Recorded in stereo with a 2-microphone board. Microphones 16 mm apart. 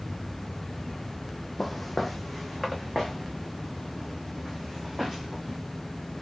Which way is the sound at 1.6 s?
5° left (ahead or behind).